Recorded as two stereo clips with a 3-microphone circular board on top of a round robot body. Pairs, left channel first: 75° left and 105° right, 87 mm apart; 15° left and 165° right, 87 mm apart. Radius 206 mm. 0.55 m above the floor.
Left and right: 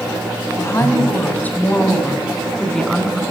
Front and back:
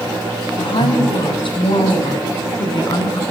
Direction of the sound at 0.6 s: 15° left.